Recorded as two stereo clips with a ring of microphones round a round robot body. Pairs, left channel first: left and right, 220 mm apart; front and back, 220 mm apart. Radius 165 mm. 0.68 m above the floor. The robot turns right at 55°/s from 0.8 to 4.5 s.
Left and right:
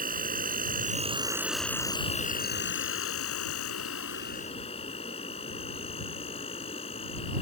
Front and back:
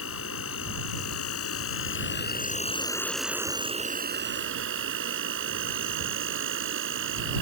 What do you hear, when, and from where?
0.0 s an insect: 40° right; by 7.4 s 160° left